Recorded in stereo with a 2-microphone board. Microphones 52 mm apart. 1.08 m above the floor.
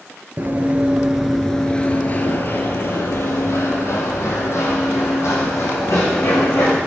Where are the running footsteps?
40° right (ahead or behind), 1.3 m; by 6.8 s 70° left (ahead or behind), 5 m.